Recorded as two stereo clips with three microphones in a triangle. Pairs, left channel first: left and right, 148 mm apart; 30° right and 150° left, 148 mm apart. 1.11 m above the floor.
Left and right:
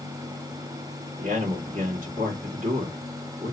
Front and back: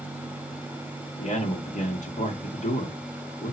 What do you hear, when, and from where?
1.2 s a man speaking: 65° right, 1.9 m